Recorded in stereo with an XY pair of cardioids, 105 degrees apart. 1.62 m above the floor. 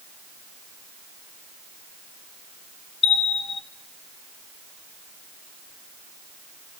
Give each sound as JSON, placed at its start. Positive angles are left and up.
{"t": 3.0, "sound": "a bell", "azimuth_deg": 45, "distance_m": 1.1}